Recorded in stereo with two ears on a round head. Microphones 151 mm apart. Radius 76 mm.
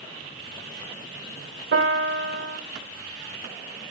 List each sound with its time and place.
1.7 s a piano: 60° right (ahead or behind), 1.6 m